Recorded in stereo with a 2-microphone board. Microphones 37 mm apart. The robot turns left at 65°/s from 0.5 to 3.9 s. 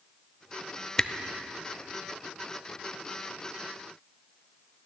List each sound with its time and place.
1.0 s a camera shutter: 20° left (ahead or behind), 0.6 m; by 1.1 s 25° left (ahead or behind), 0.6 m